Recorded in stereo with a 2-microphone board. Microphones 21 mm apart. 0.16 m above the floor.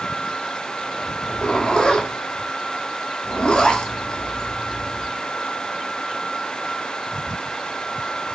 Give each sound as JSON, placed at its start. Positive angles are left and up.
{"t": 1.2, "sound": "a zipper", "side_deg": 40, "distance_m": 0.9}